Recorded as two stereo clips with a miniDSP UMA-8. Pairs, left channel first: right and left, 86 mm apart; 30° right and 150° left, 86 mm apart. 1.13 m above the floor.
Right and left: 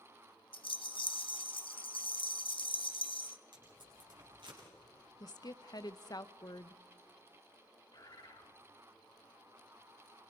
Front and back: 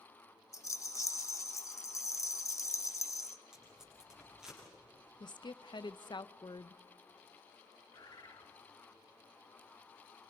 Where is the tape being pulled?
65° left, 9.5 m.